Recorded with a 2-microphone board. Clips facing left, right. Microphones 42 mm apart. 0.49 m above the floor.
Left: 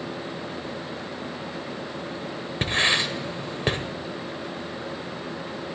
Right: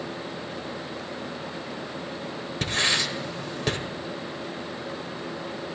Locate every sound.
2.6 s writing: 30° left (ahead or behind), 1.2 m